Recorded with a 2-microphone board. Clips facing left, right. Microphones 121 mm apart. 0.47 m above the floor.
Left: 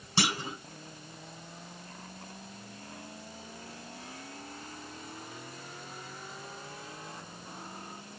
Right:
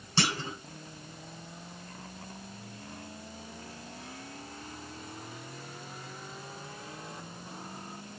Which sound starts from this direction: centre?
A clunk, at 0.2 s.